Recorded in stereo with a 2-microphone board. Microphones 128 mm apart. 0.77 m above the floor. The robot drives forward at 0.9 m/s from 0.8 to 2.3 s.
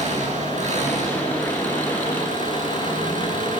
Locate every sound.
0.0 s an engine running: 60° right (ahead or behind), 6.5 m; by 3.6 s 75° right (ahead or behind), 6 m